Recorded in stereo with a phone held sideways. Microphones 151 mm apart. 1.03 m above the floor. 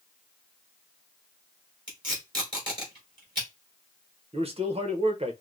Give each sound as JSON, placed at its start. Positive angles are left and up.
{"t": 1.9, "sound": "tape being pulled", "side_deg": -30, "distance_m": 3.0}
{"t": 4.3, "sound": "a man speaking", "side_deg": -40, "distance_m": 0.9}